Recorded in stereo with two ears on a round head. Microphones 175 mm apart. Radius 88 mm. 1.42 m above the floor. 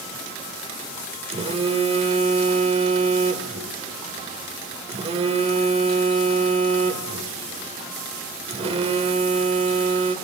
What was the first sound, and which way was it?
A phone buzzing, 35° right (ahead or behind).